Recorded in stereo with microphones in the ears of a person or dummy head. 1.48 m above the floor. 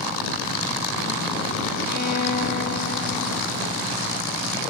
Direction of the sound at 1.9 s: 55° left (ahead or behind).